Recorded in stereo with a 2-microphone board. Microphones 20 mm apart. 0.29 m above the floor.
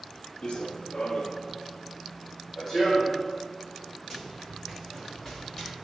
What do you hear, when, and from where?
0.4 s running footsteps: 60° left (ahead or behind), 0.5 m; by 5.7 s 10° left (ahead or behind), 2.5 m